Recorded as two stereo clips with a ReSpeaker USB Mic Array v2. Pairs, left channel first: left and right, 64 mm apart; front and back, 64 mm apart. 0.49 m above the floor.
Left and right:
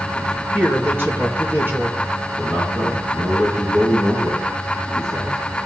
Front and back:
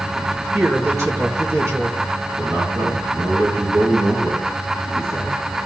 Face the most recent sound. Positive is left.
turn(degrees=-145)